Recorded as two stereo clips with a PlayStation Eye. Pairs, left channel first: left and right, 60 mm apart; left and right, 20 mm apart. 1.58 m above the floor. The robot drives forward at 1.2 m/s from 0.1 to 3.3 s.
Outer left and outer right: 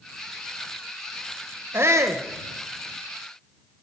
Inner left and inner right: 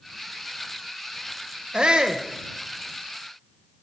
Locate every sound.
1.7 s a shout: 45° right (ahead or behind), 1.0 m; by 2.2 s 60° right (ahead or behind), 0.8 m